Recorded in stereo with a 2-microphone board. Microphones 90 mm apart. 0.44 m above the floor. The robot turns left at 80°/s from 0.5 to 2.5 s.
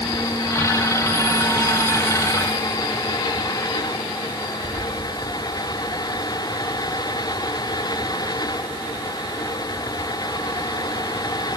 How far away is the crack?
No crack in this recording.